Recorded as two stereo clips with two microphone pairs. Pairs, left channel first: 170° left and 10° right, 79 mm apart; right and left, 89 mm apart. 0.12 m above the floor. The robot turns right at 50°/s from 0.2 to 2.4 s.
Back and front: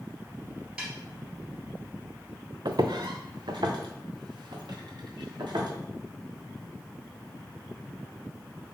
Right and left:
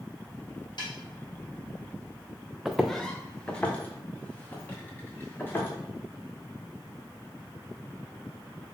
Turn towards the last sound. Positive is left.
turn(degrees=-25)